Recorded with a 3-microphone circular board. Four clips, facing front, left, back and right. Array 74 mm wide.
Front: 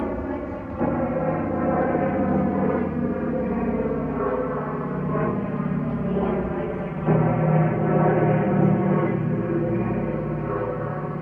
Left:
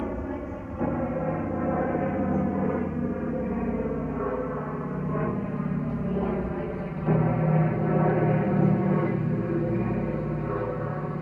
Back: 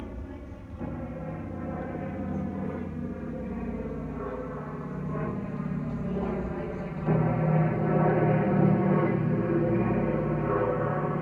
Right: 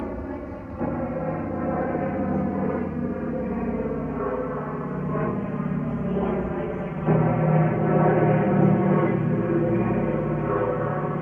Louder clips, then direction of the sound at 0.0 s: Even, front 14 dB; 5° right.